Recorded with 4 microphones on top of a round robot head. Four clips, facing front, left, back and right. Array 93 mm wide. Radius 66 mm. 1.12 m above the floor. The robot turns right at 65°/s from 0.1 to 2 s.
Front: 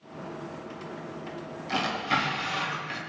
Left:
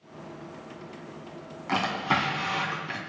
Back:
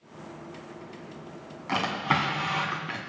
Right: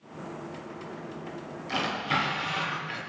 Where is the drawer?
130° left, 2 m; by 3.1 s 150° left, 2 m.